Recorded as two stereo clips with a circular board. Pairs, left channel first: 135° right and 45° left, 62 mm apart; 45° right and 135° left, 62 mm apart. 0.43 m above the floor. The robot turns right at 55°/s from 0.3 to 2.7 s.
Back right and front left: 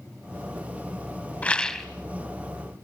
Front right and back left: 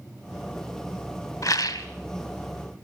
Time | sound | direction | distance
1.4 | a rattle | 70° right | 1.3 m